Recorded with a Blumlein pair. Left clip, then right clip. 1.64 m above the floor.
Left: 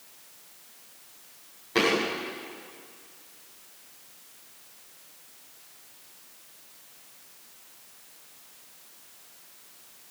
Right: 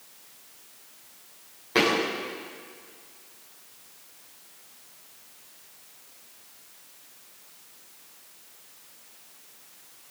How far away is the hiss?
I don't hear a hiss.